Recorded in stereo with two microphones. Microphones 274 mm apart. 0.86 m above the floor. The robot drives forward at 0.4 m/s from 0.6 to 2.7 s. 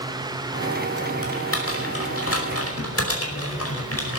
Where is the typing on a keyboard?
50° left (ahead or behind), 5 m; by 4.2 s 55° left (ahead or behind), 5 m.